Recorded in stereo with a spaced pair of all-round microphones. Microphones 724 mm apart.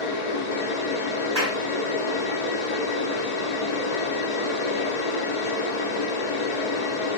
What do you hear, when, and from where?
0.0 s a fan: 65° left (ahead or behind), 0.9 m
1.4 s a clap: 20° right (ahead or behind), 0.5 m